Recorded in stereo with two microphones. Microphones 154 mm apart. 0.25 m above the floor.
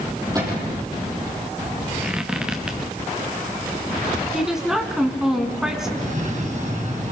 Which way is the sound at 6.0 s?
50° right (ahead or behind).